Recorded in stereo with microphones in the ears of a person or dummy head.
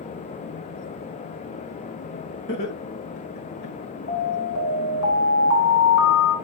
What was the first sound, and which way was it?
Laughter, 50° left (ahead or behind).